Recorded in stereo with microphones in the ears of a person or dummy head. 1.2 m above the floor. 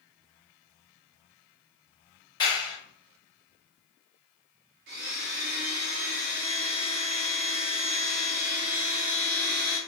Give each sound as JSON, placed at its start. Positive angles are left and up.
{"t": 2.4, "sound": "a clap", "side_deg": 25, "distance_m": 1.4}
{"t": 4.9, "sound": "a blender", "side_deg": -40, "distance_m": 0.7}